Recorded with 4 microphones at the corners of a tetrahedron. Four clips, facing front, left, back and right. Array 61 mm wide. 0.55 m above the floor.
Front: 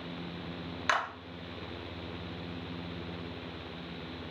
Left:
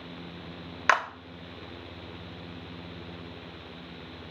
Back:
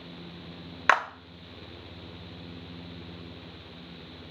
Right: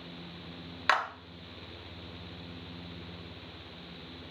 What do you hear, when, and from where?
0.9 s a clap: 155° left, 0.6 m